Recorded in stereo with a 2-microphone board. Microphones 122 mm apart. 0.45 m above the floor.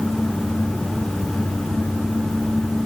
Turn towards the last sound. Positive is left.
No sound to turn to.